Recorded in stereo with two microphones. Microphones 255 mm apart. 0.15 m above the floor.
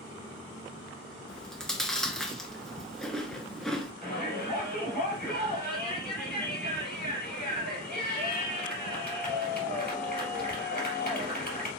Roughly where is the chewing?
Centre.